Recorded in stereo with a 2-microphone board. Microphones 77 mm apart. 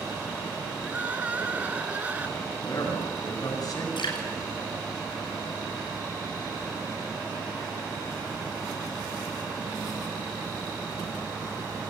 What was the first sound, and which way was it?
Crying, 20° right (ahead or behind).